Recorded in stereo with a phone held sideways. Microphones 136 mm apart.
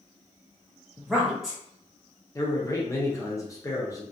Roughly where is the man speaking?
Left.